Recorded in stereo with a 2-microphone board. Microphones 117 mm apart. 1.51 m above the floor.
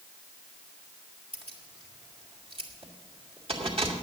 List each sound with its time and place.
1.3 s keys jangling: 55° right (ahead or behind), 2.5 m